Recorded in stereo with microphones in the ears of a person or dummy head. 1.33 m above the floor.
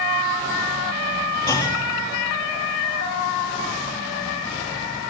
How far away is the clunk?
About 3.5 m.